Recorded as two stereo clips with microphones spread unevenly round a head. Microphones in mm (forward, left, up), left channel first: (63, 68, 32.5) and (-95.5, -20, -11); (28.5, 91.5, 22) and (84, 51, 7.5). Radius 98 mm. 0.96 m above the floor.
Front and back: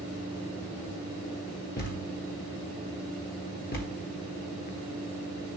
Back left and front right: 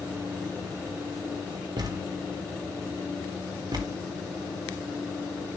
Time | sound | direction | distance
1.8 | a thud | 15° right | 1.3 m